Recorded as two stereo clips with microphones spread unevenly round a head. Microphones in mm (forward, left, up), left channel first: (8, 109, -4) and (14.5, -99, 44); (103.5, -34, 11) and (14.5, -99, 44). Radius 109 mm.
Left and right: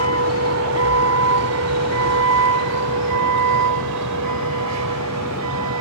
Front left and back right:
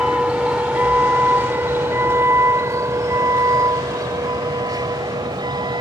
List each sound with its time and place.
0.0 s a vehicle: 65° right; by 5.8 s 100° right